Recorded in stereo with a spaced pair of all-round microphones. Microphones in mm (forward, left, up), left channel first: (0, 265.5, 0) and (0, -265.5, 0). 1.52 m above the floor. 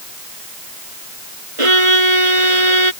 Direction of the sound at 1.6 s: 70° right (ahead or behind).